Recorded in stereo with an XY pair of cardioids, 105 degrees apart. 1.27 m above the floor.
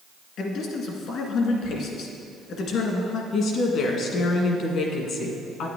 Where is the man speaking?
70° left, 1.8 m.